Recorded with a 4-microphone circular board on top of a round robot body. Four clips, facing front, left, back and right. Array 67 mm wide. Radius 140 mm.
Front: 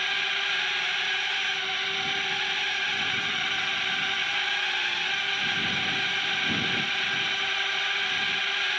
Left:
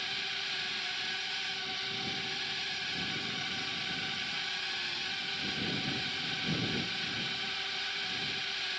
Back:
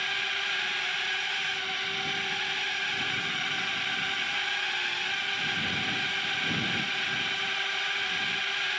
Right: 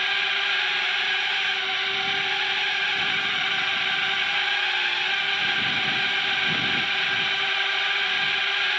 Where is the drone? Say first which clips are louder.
Right 14 dB, front 3 dB; 80° right.